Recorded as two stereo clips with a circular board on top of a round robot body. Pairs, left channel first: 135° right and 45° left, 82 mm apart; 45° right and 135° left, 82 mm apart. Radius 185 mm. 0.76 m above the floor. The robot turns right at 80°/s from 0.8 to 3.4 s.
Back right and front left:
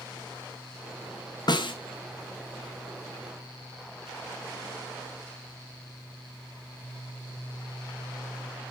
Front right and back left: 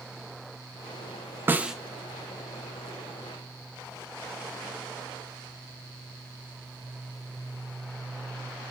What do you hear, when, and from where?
1.5 s a snare drum: 160° right, 1.0 m; by 1.8 s 140° right, 1.0 m